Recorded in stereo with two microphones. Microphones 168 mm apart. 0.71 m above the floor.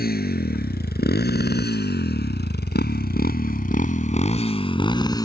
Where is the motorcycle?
65° left (ahead or behind); by 5.3 s 20° left (ahead or behind).